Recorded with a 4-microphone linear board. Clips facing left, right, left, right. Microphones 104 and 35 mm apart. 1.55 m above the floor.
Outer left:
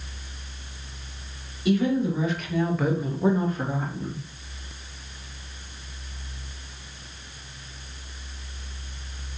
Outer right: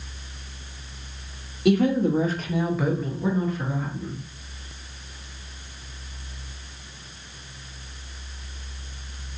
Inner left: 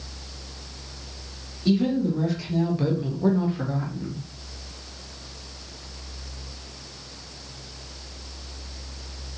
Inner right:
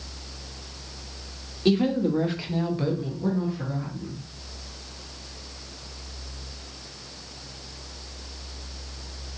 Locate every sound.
1.6 s a woman speaking: 65° right (ahead or behind), 1.2 m; by 4.2 s 55° left (ahead or behind), 1.5 m